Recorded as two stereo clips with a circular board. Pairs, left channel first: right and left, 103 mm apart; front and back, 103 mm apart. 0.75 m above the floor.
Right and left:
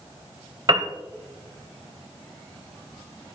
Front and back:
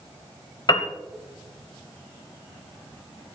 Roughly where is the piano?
Ahead left.